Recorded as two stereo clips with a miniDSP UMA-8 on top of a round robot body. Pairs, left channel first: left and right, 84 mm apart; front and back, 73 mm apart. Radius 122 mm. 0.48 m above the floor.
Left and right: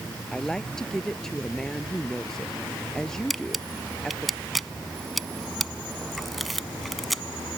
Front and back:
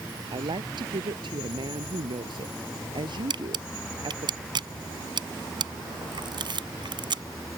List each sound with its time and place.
0.3 s a woman speaking: 175° left
3.3 s a camera shutter: straight behind